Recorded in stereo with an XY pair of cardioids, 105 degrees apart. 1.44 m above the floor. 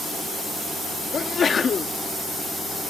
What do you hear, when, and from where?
1.1 s a sneeze: 40° left